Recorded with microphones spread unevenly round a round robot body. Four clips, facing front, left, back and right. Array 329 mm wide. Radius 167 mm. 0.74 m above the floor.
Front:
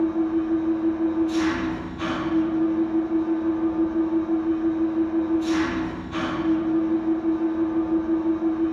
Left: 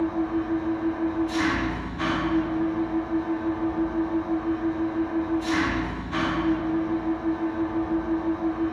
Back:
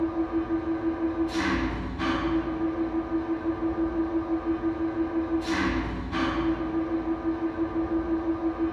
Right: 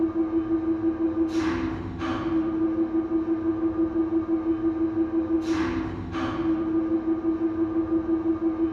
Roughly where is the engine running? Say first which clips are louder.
Right 1 dB, front 5 dB; left.